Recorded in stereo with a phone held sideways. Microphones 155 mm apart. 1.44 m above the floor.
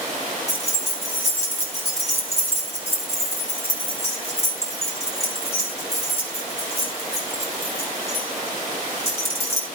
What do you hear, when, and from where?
0.5 s keys jangling: 45° left (ahead or behind), 5.5 m